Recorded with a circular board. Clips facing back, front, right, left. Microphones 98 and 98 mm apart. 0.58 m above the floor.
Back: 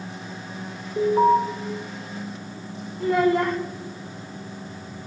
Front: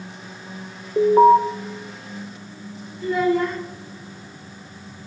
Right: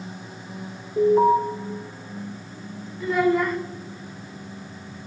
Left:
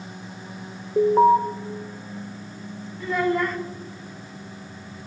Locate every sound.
1.0 s an alarm: 50° left, 1.8 m
3.0 s a child speaking: 175° right, 2 m